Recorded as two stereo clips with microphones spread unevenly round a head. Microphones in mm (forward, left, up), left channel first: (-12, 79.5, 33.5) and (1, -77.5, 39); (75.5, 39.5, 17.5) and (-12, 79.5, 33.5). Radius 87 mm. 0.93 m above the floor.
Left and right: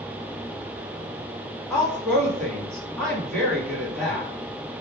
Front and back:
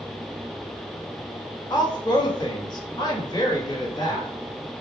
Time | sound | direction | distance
1.7 | a woman speaking | 15° left | 1.7 m